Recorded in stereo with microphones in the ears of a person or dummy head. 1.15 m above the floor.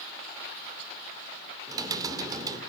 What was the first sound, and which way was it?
Typing on a keyboard, 20° right (ahead or behind).